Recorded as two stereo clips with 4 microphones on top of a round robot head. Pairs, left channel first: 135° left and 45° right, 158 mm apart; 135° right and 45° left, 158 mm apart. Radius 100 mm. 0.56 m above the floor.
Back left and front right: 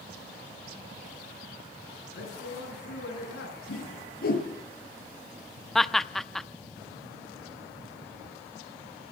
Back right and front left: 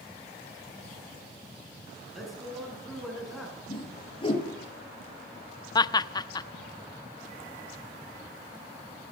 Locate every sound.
2.1 s a man speaking: 135° left, 8 m
3.7 s a whoosh: 165° left, 5 m
5.8 s laughter: 140° right, 0.8 m